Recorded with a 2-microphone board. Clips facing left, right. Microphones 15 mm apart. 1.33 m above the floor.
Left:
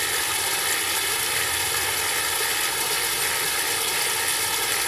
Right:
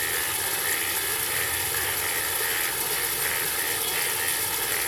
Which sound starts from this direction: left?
Running water, at 0.0 s.